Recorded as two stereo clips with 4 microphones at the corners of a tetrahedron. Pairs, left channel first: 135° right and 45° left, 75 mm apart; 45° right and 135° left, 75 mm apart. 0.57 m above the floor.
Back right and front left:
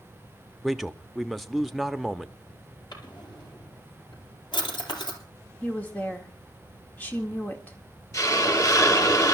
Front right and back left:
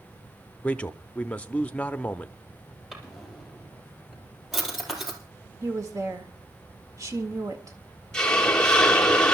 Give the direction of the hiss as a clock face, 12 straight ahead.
4 o'clock.